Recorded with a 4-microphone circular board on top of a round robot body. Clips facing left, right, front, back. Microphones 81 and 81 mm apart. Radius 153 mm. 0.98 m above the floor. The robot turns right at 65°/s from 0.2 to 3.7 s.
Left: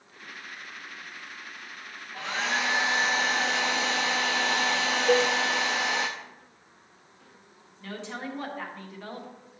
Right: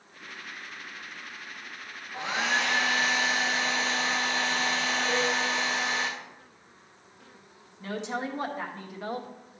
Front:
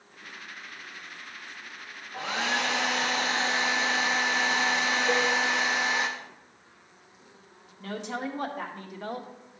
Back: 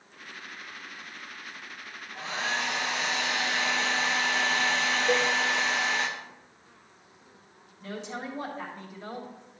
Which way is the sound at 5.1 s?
100° left.